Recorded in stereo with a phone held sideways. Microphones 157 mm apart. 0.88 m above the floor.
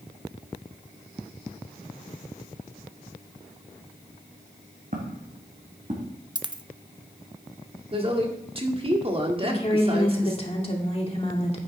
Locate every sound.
4.9 s footsteps: 60° right (ahead or behind), 2.5 m; by 6.2 s 45° right (ahead or behind), 3 m
6.3 s a dropped coin: 30° right (ahead or behind), 0.6 m
7.9 s a woman speaking: 35° right (ahead or behind), 1.6 m
9.4 s a woman speaking: 40° left (ahead or behind), 2 m